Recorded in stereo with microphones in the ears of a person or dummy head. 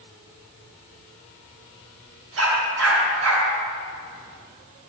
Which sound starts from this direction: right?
A dog barking, at 2.4 s.